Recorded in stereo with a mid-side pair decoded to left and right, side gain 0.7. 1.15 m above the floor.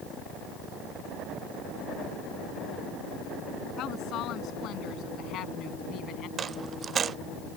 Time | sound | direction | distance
3.8 | a woman speaking | 50° left | ?
6.4 | a dropped coin | 35° right | ?